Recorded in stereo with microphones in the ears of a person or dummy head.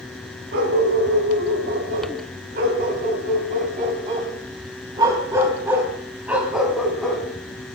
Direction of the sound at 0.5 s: 65° right (ahead or behind).